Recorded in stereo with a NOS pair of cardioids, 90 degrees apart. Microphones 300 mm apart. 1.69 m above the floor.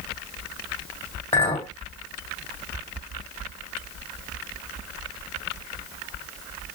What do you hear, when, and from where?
1.3 s a clink: 20° left, 2.0 m